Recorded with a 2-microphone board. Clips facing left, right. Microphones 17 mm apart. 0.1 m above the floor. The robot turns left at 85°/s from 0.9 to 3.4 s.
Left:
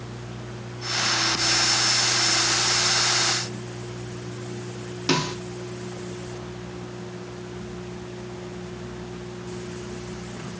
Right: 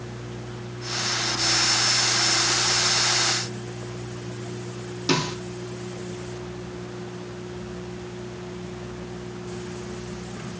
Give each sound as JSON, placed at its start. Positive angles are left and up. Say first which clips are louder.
{"t": 5.1, "sound": "a snare drum", "louder": "even", "side_deg": 30, "distance_m": 2.0}